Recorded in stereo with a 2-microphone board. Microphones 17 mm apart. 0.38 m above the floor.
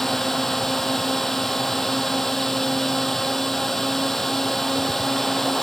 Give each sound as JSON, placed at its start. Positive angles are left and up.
{"t": 0.0, "sound": "a drone", "side_deg": 15}